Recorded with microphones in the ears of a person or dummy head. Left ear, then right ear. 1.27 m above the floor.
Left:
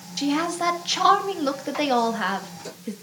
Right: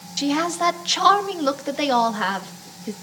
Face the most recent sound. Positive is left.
turn(degrees=-5)  # may be behind; listen again after turning